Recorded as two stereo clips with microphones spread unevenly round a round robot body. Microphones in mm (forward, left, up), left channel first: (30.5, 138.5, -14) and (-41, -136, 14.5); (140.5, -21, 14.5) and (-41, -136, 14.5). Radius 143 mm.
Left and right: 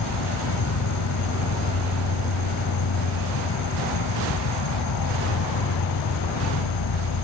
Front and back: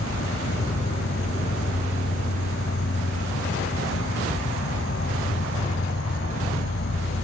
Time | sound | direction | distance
0.0 | an insect | 75° left | ?